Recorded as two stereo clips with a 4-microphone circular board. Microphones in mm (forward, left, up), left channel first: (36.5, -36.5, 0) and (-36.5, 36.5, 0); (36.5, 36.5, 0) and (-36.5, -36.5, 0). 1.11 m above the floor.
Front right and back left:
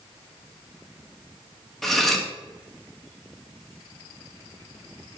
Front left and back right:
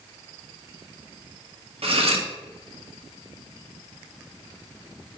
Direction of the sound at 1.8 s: 130° right.